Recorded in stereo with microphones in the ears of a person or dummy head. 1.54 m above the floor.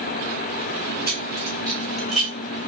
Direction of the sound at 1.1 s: 20° left (ahead or behind).